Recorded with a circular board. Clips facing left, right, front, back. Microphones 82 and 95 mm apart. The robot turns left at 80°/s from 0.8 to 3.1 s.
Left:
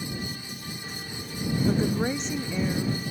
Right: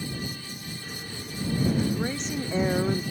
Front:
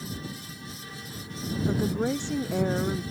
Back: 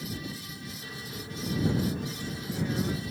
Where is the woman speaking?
45° left; by 3.0 s 65° right.